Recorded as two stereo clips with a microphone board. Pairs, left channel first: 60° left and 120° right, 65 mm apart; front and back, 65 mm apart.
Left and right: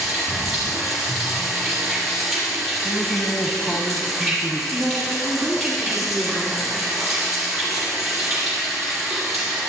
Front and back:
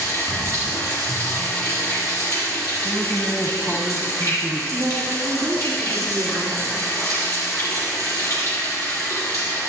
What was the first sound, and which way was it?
Running water, 30° right.